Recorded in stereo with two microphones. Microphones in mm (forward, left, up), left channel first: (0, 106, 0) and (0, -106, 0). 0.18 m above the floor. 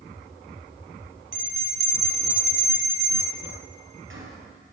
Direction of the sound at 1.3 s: 65° right (ahead or behind).